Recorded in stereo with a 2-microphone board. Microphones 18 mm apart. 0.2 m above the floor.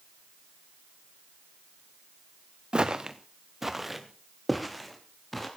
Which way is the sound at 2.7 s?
45° right (ahead or behind).